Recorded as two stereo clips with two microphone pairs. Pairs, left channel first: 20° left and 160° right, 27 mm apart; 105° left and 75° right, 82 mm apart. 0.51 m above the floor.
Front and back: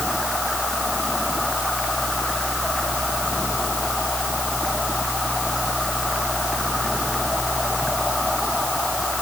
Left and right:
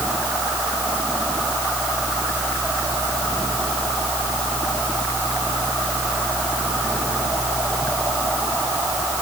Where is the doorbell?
I don't hear a doorbell.